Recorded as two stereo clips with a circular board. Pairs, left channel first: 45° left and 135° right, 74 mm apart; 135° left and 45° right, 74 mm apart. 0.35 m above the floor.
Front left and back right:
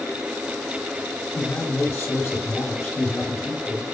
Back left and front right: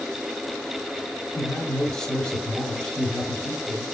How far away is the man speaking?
About 1.8 m.